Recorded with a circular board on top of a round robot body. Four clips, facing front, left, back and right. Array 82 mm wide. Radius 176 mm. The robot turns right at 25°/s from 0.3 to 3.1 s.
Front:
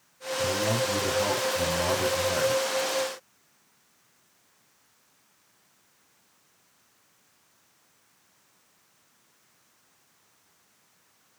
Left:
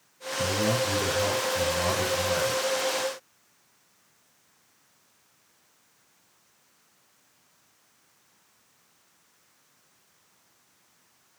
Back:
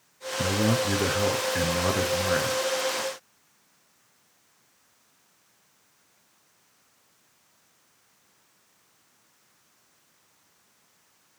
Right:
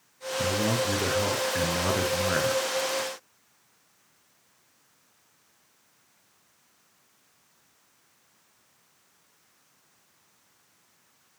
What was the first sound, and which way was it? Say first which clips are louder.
A man speaking: left 1 dB, back 2 dB; straight behind.